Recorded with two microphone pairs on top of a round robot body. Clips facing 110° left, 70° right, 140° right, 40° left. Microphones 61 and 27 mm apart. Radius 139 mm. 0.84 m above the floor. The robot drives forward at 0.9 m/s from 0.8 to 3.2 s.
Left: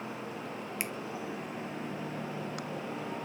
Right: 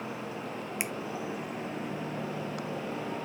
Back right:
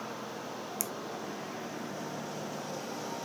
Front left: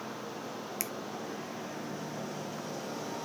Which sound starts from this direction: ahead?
A finger snap, at 0.8 s.